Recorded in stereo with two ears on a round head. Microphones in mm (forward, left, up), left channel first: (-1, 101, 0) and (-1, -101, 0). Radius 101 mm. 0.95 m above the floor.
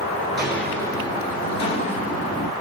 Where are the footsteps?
Centre (ahead or behind), 0.9 m; by 2.5 s 35° left (ahead or behind), 1.5 m.